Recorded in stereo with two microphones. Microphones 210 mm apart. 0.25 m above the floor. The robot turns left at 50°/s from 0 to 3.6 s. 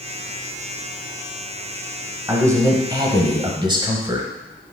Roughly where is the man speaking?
Centre.